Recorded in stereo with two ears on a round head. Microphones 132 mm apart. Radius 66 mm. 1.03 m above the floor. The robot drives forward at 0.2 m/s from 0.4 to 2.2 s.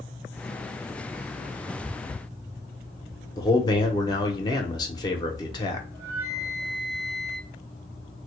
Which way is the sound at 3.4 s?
25° left (ahead or behind).